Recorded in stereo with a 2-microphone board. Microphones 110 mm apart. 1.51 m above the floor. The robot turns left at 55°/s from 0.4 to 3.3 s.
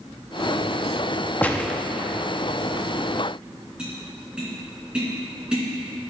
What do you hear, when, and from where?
1.4 s a gunshot: 15° left (ahead or behind), 0.6 m; by 1.8 s centre (ahead or behind), 0.6 m
3.8 s tapping: 10° right (ahead or behind), 2.5 m